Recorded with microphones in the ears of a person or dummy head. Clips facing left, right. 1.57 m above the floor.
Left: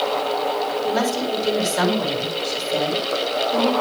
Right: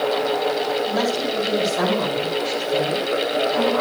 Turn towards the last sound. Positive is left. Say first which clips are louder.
# even
turn(degrees=80)